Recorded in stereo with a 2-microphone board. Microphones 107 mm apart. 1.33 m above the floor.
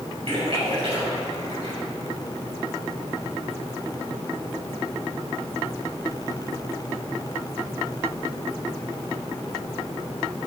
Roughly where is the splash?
Right.